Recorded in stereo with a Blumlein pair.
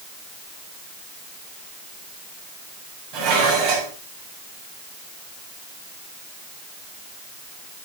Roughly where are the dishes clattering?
Ahead right.